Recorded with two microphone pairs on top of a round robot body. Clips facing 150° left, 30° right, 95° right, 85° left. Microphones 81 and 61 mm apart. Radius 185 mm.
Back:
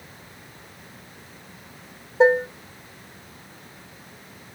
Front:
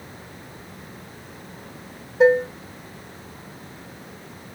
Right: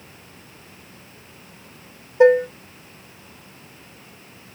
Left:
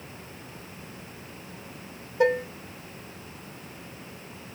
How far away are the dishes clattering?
About 1.0 m.